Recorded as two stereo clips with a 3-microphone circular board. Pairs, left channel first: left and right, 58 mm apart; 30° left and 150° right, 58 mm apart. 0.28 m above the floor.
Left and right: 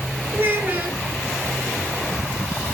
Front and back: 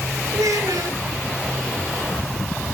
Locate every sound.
0.3 s a child speaking: 145° right, 3.5 m